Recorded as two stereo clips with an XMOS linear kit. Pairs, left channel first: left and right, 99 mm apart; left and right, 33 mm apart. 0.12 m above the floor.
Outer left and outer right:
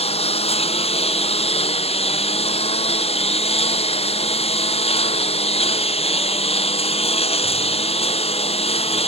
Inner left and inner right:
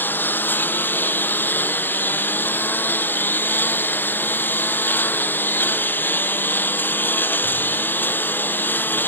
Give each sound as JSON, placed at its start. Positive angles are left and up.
{"t": 0.0, "sound": "a lawn mower", "side_deg": 85}